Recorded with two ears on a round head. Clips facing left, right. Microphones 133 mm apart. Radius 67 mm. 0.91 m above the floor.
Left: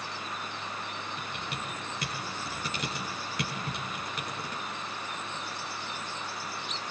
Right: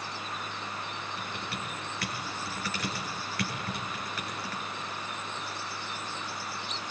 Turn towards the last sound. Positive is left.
turn(degrees=20)  # may be behind; listen again after turning